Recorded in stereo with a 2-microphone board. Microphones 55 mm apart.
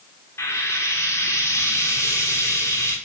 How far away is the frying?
About 3.5 m.